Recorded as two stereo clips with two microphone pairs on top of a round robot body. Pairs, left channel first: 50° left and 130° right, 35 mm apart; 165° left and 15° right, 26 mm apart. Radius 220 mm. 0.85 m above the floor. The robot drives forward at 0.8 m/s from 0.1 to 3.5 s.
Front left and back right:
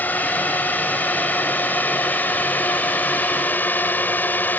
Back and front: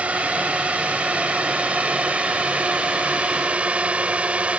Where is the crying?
No crying in this recording.